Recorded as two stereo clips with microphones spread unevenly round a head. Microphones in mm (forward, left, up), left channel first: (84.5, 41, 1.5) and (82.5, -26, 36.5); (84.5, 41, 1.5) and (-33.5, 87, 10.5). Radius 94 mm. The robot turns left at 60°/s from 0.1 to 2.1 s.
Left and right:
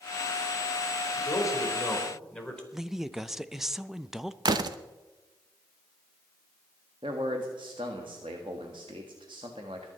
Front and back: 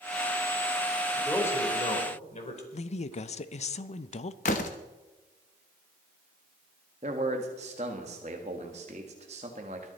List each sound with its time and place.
1.2 s a man speaking: 70° left, 3.5 m; by 2.6 s 10° left, 3.5 m
2.7 s a woman speaking: 5° left, 0.6 m
4.5 s a door slam: 70° right, 0.8 m
7.0 s a man speaking: 145° right, 1.6 m